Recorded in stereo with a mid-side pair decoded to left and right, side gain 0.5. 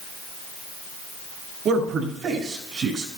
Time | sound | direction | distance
1.6 | a man speaking | 60° right | 6 m